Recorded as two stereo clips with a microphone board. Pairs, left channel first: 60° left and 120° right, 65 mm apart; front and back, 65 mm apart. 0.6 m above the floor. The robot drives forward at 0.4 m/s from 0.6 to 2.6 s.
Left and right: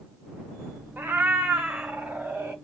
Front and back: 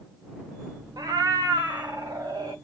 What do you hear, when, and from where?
1.0 s a cat meowing: straight behind, 0.6 m